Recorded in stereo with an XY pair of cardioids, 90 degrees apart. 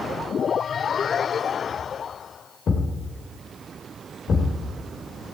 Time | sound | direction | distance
2.7 | a thud | 60° left | 2.5 m